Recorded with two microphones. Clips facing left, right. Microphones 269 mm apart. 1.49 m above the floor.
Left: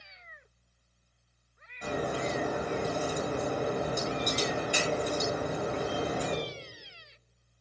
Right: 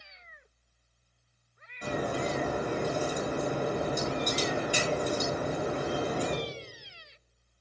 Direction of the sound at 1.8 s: 10° right (ahead or behind).